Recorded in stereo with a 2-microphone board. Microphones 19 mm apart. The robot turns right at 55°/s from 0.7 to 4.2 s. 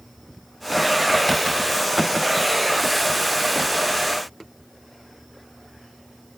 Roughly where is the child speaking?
No child speaking in this recording.